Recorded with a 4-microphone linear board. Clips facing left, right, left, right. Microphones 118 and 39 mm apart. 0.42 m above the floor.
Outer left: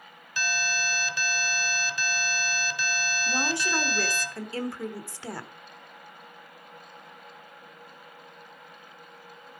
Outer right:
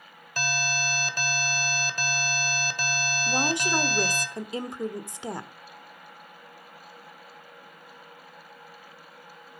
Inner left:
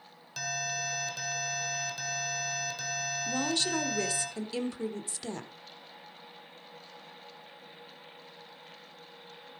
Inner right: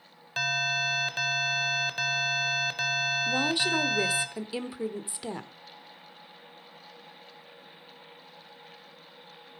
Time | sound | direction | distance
0.4 | an alarm | 45° right (ahead or behind) | 1.5 m
3.3 | a woman speaking | 20° right (ahead or behind) | 1.1 m